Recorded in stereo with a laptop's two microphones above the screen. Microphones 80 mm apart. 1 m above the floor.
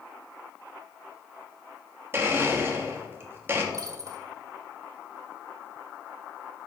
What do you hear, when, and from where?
2.1 s a blender: 30° right (ahead or behind), 1.3 m
3.7 s a dropped coin: 45° right (ahead or behind), 1.7 m